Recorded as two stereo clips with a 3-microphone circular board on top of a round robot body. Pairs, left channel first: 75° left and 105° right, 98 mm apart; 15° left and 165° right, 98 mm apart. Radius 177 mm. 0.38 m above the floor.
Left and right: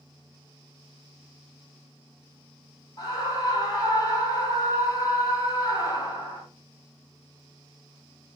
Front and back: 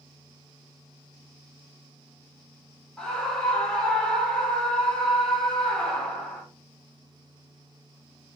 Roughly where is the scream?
Left.